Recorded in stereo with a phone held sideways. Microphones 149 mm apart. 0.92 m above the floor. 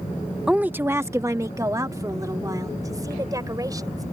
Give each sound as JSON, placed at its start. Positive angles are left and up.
{"t": 0.5, "sound": "a woman speaking", "side_deg": -5}